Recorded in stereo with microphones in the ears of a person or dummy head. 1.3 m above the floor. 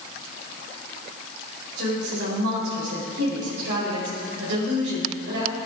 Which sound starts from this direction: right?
A woman speaking, at 1.8 s.